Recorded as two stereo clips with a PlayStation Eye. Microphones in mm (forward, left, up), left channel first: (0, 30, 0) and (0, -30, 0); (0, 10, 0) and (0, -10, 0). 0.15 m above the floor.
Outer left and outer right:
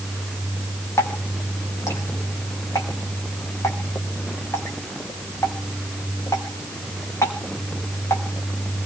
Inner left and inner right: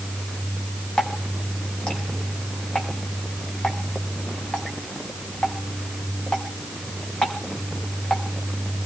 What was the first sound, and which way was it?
Dripping, 55° left (ahead or behind).